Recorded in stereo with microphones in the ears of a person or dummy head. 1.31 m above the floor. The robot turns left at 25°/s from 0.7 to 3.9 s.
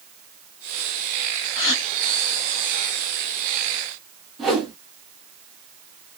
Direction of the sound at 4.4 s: Centre (ahead or behind).